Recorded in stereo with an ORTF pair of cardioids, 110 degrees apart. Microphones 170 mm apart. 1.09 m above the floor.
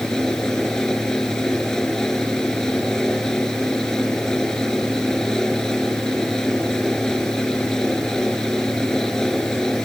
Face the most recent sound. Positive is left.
turn(degrees=5)